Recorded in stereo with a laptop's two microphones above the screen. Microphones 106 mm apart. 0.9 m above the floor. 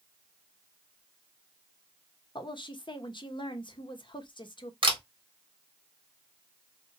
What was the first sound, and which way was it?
A woman speaking, 50° left (ahead or behind).